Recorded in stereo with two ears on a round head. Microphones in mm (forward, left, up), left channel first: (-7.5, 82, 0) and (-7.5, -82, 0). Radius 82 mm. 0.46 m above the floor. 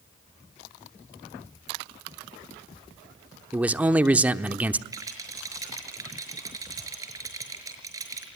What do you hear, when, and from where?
3.5 s a man speaking: 10° right (ahead or behind), 0.9 m
4.9 s a rattle: 20° right (ahead or behind), 5.5 m